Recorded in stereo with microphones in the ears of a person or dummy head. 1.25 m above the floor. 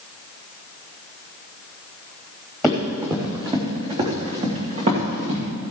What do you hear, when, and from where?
2.6 s running footsteps: 5° right (ahead or behind), 2.5 m; by 5.4 s 45° right (ahead or behind), 4.5 m